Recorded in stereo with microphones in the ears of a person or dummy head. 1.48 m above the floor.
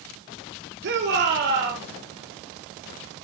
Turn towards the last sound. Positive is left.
turn(degrees=-60)  # may be behind; listen again after turning